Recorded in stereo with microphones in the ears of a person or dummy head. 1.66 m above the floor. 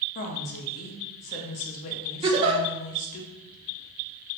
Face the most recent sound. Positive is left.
turn(degrees=-30)  # may be behind; listen again after turning